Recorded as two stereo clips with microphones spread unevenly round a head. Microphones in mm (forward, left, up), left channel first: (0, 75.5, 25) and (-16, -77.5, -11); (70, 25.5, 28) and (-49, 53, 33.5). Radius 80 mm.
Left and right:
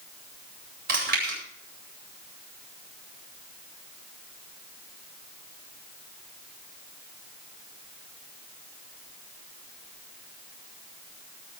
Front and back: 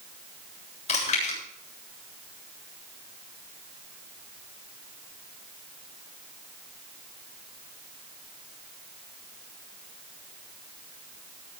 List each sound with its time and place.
0.9 s chewing: 60° right, 8.5 m